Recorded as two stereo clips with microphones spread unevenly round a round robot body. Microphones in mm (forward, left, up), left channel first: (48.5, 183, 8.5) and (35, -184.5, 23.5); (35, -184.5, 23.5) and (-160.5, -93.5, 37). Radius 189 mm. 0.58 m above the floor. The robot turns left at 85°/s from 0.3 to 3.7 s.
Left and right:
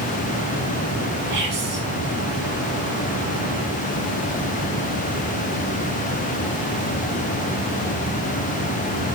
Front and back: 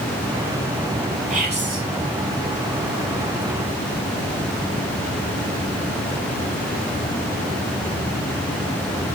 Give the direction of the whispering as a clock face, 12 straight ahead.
5 o'clock.